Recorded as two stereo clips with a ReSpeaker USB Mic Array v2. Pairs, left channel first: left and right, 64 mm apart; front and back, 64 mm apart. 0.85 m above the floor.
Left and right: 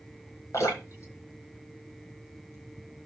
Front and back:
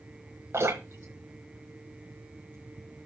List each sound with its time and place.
0.5 s dripping: 130° left, 6.5 m